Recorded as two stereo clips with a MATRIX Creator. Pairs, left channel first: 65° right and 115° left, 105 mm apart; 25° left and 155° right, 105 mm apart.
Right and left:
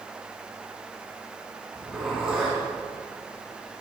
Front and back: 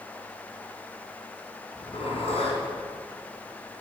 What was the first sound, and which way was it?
A zipper, 25° left.